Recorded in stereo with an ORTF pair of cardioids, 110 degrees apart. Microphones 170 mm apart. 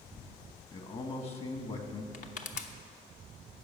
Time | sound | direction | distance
0.7 | a man speaking | 35° left | 1.7 m
2.1 | crushing | 50° left | 1.0 m